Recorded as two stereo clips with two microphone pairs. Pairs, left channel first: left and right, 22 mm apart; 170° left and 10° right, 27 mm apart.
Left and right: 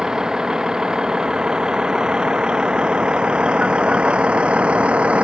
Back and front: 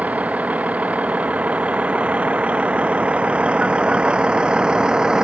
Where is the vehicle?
30° right; by 5.2 s 75° right.